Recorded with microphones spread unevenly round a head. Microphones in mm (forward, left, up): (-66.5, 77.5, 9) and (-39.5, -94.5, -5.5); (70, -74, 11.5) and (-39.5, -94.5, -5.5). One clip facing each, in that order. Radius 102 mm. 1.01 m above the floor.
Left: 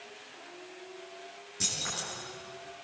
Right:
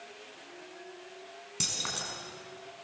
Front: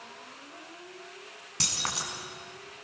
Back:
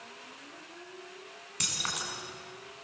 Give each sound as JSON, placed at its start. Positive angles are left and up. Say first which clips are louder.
{"t": 1.6, "sound": "keys jangling", "louder": "even, front 3 dB", "azimuth_deg": -45, "distance_m": 6.0}